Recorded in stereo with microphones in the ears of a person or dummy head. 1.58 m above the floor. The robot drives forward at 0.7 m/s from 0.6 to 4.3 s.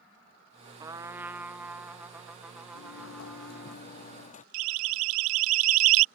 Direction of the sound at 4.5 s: 80° right.